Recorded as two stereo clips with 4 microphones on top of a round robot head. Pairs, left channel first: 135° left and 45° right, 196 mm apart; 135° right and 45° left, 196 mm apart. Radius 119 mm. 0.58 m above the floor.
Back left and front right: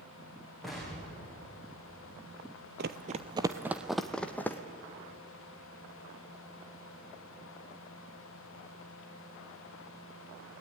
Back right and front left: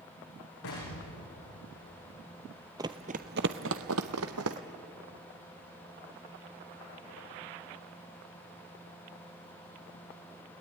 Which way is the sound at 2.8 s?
25° right.